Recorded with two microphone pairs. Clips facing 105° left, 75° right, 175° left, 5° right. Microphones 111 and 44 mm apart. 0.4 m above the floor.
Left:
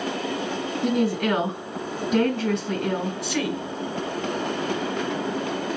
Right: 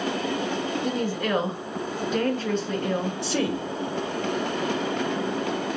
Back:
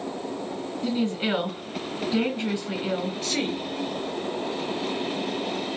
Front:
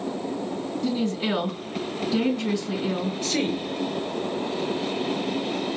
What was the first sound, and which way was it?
A woman speaking, 115° left.